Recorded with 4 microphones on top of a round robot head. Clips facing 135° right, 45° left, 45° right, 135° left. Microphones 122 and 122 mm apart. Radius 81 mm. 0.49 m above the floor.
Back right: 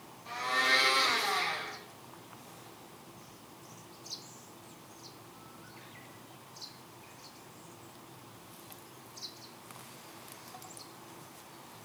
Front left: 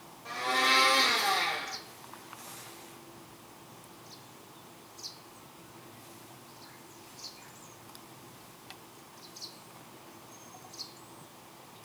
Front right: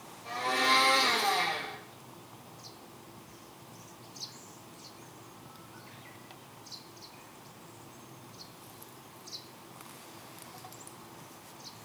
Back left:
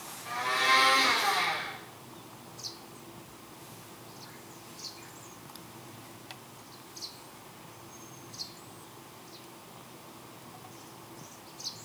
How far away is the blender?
About 5 m.